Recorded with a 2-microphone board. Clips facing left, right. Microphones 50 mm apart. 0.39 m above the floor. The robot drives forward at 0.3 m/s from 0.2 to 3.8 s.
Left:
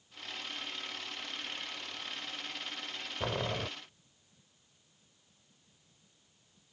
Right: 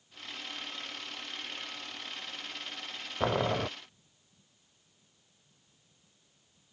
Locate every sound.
3.2 s boiling: 25° right (ahead or behind); by 3.7 s 20° right (ahead or behind)